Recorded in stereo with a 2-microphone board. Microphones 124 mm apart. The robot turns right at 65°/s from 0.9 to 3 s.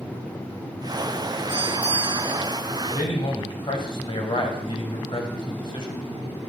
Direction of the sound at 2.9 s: 45° left (ahead or behind).